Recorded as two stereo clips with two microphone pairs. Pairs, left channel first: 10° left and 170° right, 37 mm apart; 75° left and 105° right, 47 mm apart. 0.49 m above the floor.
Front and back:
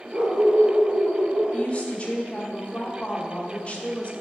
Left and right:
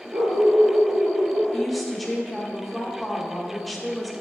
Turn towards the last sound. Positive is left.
turn(degrees=-10)